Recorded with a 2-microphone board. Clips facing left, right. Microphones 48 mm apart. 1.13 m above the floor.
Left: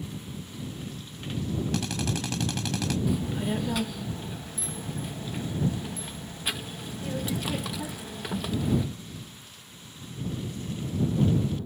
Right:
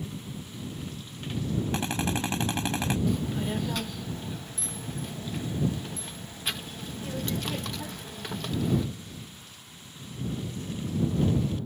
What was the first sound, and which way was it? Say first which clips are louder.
A drill: right 1 dB; 25° right (ahead or behind).